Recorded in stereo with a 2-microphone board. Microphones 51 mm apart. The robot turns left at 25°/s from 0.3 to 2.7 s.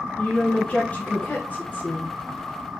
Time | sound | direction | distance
0.2 | a woman speaking | 135° left | 1.3 m